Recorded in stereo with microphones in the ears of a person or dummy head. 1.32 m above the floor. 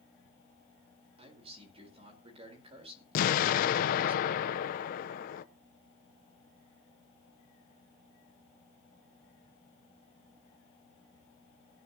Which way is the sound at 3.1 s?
55° left (ahead or behind).